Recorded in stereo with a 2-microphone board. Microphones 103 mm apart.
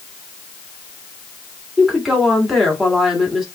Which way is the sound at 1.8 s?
Centre (ahead or behind).